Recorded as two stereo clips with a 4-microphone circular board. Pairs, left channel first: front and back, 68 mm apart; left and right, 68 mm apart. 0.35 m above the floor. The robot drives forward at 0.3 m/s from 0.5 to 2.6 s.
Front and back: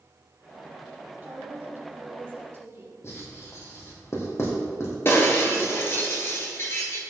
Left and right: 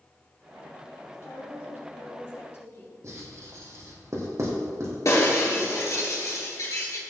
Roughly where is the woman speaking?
Behind left.